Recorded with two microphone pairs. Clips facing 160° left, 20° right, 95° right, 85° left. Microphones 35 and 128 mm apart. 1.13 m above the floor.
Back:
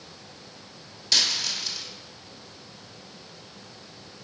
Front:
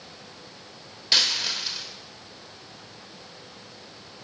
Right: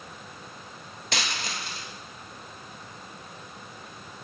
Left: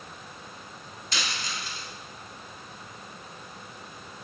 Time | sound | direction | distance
1.1 | a dropped coin | 90° right | 1.4 m